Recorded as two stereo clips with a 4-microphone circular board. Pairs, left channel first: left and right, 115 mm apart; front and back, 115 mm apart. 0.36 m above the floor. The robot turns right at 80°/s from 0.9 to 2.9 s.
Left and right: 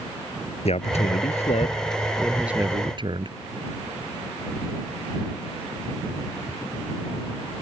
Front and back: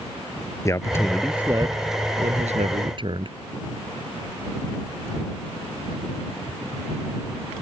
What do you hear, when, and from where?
0.7 s a man speaking: 65° left; by 3.4 s 135° right